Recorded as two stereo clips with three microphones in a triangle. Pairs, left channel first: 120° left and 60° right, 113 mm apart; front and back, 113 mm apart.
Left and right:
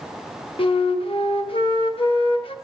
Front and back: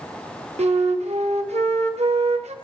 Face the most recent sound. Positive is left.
turn(degrees=160)